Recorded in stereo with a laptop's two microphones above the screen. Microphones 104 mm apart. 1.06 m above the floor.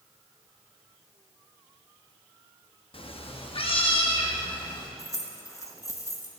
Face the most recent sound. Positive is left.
turn(degrees=30)  # may be behind; listen again after turning